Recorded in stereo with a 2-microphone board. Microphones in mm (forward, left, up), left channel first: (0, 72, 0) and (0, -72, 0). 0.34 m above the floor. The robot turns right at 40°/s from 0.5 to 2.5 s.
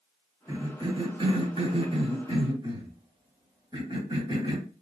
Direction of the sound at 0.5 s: 25° right (ahead or behind).